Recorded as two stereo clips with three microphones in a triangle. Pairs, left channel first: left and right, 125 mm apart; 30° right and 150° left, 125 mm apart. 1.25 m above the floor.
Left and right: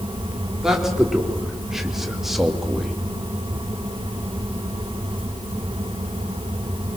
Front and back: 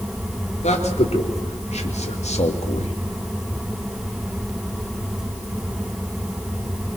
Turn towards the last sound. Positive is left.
turn(degrees=0)